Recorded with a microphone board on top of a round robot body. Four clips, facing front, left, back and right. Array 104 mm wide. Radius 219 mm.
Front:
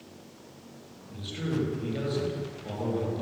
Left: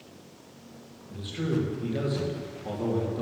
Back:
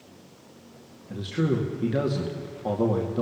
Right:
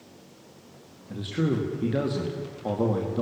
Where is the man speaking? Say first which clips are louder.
Right 3 dB, back 6 dB; 140° right, 2.5 m.